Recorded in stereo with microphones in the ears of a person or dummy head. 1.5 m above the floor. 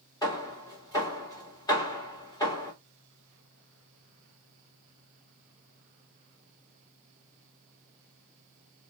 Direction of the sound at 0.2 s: 20° left (ahead or behind).